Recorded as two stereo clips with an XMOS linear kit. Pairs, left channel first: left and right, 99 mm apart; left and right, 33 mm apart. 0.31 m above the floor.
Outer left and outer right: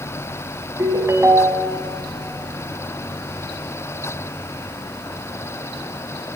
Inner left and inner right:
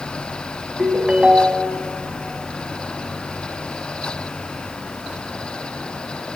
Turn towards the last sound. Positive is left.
turn(degrees=-30)  # may be behind; listen again after turning